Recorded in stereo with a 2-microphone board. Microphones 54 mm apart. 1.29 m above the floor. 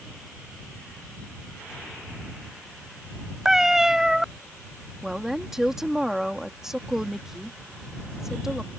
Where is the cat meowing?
10° right (ahead or behind).